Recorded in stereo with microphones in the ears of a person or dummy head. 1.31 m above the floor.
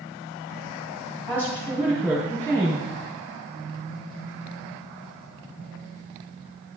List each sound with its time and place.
1.3 s a woman speaking: 5° left (ahead or behind), 3 m